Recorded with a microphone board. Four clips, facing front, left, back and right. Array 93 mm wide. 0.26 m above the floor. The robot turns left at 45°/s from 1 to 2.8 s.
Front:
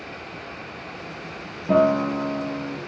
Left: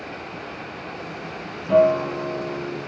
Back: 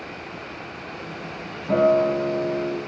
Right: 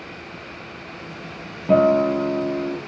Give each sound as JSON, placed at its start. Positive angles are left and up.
{"t": 1.7, "sound": "a guitar", "azimuth_deg": -70, "distance_m": 2.5}